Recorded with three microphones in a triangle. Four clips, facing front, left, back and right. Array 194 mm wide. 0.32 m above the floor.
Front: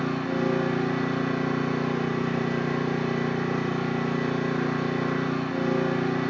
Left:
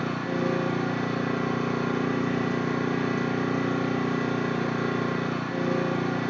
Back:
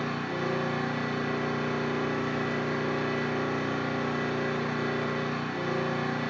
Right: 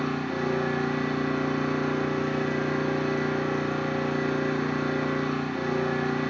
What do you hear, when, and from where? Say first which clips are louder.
0.0 s an engine running: left 1 dB, front 5 dB; 55° left, 4.5 m